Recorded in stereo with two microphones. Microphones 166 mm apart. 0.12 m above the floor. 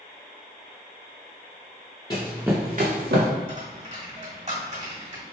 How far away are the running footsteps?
About 0.9 m.